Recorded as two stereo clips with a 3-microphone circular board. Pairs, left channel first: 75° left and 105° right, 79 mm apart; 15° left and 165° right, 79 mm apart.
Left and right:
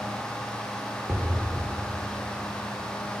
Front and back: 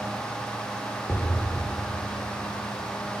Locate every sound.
1.1 s an explosion: 45° right, 0.9 m